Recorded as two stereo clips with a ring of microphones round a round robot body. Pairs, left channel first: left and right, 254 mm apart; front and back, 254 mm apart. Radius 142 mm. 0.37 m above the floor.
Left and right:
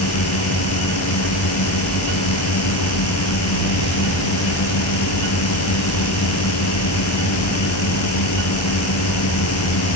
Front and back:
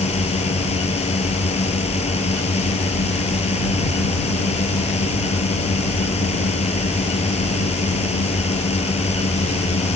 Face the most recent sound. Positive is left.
turn(degrees=65)